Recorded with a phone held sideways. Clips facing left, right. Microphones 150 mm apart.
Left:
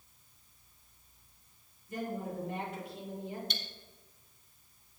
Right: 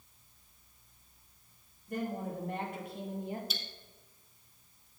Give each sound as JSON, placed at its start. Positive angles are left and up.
{"t": 1.9, "sound": "a woman speaking", "side_deg": -60, "distance_m": 3.0}
{"t": 3.5, "sound": "cutlery clinking", "side_deg": -5, "distance_m": 1.0}